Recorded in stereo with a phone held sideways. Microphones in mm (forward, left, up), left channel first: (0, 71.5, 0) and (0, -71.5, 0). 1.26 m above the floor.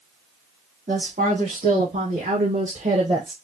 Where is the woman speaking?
80° right, 3 m; by 3.3 s 25° right (ahead or behind), 0.8 m.